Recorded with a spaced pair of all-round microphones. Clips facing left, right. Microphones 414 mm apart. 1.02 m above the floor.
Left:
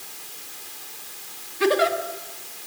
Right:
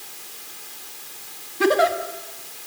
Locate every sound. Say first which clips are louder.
1.6 s a giggle: right 1 dB; 60° right (ahead or behind), 1.7 m